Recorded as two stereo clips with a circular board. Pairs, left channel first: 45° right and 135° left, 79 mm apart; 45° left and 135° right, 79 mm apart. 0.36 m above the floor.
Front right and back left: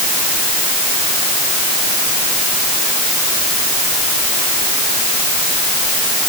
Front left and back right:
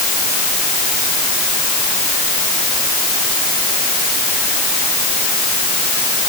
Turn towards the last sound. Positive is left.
No sound to turn to.